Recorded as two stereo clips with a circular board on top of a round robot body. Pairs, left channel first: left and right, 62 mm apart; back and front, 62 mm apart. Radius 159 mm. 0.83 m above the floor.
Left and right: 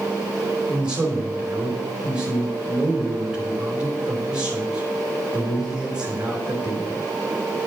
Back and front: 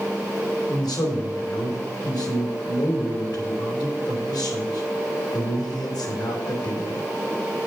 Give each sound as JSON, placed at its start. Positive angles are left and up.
{"t": 0.7, "sound": "a man speaking", "azimuth_deg": -165, "distance_m": 2.5}